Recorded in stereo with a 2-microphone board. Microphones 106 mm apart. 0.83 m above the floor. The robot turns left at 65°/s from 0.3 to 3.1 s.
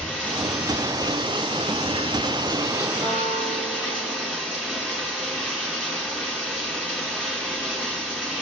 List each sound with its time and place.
0.0 s running water: 15° left, 4.5 m; by 8.4 s 170° right, 4.5 m
3.0 s a guitar: 60° right (ahead or behind), 5 m; by 4.4 s 50° right (ahead or behind), 5 m